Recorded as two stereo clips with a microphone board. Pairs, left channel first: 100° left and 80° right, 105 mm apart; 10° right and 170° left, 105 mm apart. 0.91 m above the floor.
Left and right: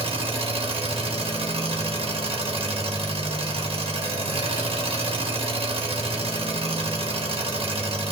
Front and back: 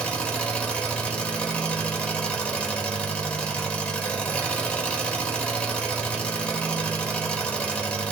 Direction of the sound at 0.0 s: 90° right.